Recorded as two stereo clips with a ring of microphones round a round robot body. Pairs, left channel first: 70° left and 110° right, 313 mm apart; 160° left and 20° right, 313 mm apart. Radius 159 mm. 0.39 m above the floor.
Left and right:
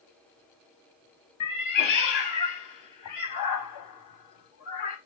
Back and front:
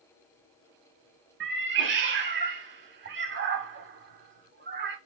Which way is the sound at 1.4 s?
35° left.